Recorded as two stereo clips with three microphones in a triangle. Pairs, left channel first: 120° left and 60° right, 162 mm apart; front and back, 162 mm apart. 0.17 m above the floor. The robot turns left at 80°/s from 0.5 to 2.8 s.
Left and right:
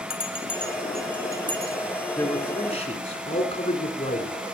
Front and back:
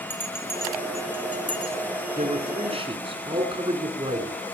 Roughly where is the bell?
Left.